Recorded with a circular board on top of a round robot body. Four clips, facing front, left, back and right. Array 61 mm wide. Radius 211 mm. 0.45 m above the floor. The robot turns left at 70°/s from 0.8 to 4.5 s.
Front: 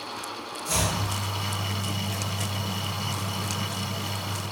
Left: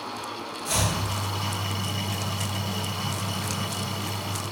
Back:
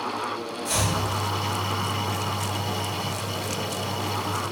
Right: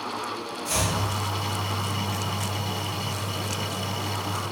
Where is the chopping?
140° left, 1.7 m; by 0.9 s 125° left, 1.7 m.